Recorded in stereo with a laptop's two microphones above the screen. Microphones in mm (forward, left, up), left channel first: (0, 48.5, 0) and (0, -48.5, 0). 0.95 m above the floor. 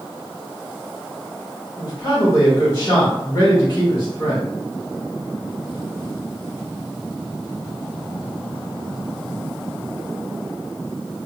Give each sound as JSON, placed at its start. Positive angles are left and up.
{"t": 1.8, "sound": "a man speaking", "side_deg": 35, "distance_m": 1.4}